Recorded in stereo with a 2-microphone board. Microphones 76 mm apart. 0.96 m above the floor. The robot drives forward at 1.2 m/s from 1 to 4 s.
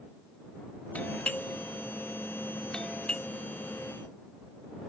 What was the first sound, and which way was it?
A doorbell, 20° left (ahead or behind).